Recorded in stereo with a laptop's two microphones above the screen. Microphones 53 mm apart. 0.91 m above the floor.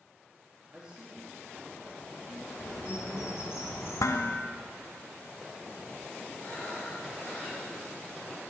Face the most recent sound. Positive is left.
turn(degrees=40)  # may be behind; listen again after turning